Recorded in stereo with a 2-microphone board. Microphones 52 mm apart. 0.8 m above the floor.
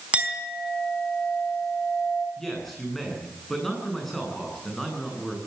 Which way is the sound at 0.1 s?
25° right (ahead or behind).